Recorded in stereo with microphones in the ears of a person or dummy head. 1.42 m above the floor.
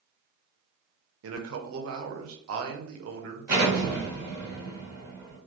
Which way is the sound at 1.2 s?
85° right.